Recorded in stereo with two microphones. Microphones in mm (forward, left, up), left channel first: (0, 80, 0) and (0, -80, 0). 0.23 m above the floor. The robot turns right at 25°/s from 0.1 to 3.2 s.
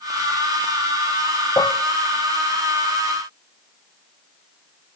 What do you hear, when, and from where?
1.6 s dishes clattering: 20° left (ahead or behind), 0.7 m